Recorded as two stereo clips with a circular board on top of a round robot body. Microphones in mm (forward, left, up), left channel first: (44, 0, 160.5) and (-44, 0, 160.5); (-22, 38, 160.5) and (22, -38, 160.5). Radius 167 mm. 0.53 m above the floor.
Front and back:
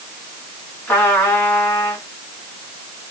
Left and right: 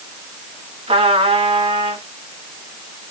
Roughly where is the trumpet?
Right.